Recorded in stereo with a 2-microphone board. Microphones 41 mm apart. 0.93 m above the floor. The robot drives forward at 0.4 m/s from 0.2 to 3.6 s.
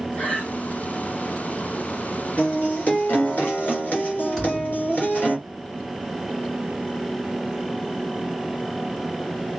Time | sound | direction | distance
0.1 | breathing | 35° left (ahead or behind) | 4 m
2.4 | a guitar | 45° left (ahead or behind) | 3.5 m
4.4 | a thud | 10° left (ahead or behind) | 3 m